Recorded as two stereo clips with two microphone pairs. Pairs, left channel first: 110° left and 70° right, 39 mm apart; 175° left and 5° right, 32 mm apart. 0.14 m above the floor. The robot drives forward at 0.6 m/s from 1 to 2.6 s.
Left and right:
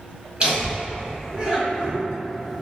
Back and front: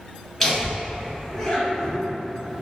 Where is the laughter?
100° right, 1.4 m; by 2.0 s 130° right, 1.6 m.